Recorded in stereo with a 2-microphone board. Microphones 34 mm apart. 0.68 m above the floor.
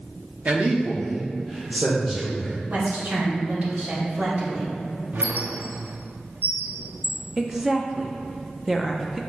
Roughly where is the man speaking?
Right.